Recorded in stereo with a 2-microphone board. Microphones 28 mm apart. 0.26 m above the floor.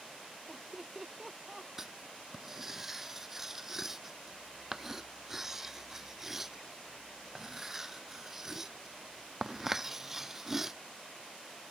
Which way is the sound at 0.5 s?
10° right (ahead or behind).